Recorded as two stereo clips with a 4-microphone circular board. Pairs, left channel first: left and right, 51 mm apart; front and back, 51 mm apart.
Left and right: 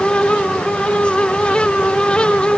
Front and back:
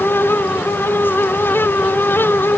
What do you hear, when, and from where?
Only background noise.